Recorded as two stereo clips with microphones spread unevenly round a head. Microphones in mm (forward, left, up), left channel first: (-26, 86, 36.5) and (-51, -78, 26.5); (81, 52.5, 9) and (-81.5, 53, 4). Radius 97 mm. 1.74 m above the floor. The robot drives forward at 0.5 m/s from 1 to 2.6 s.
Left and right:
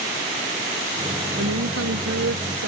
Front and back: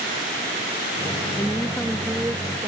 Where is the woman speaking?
75° right; by 2.7 s 110° right.